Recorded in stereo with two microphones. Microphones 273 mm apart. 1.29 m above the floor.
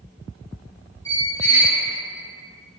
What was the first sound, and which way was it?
A squeak, 10° left (ahead or behind).